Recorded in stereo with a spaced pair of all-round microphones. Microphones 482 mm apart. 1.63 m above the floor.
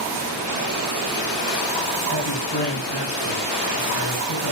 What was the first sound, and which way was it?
A man speaking, 55° left (ahead or behind).